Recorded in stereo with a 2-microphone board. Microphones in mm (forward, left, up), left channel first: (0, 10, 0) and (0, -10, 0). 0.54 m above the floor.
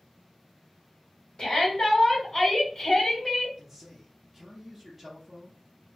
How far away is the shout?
About 1.8 m.